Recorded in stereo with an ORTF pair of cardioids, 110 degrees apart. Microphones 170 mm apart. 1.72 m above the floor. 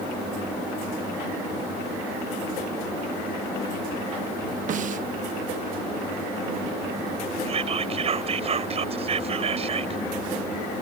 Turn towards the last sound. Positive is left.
turn(degrees=-35)